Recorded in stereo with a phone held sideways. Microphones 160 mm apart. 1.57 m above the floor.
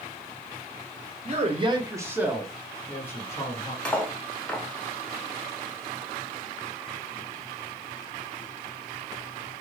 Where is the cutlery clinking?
5° left (ahead or behind), 0.7 m.